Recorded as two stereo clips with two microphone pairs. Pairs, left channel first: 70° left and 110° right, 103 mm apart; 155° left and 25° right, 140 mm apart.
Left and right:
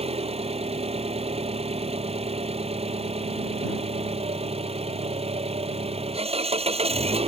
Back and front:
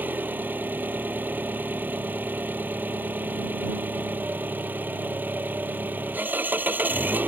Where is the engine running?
100° right.